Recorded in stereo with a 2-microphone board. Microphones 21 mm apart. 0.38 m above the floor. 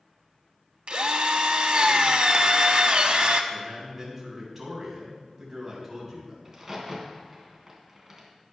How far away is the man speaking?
About 3.5 m.